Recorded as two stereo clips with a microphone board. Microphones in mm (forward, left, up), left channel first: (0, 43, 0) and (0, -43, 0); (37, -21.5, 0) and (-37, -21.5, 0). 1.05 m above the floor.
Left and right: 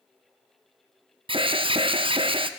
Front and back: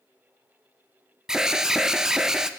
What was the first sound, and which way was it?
An alarm, 95° right.